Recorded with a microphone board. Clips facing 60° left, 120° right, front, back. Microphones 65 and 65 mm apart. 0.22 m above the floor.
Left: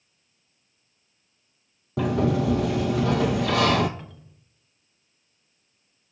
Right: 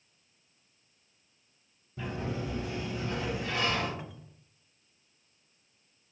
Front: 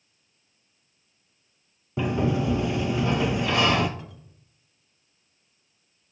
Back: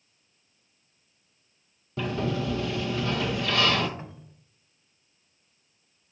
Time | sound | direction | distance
2.0 | a sliding door | 70° left | 0.9 m
4.0 | a cupboard door | 170° left | 0.8 m